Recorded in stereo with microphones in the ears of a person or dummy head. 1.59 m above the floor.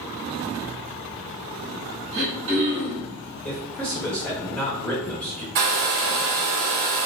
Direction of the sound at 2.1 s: 50° right (ahead or behind).